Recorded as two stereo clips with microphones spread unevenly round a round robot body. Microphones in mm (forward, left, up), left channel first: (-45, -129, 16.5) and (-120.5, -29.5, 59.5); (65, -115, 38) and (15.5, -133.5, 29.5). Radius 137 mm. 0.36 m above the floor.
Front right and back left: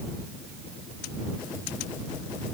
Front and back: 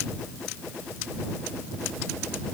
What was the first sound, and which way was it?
Only background noise.